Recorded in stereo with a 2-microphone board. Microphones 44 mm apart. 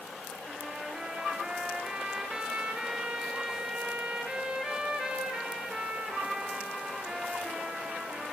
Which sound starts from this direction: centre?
A trumpet, at 0.5 s.